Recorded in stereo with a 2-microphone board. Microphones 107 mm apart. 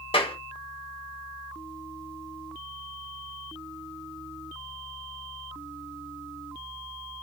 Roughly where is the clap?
Left.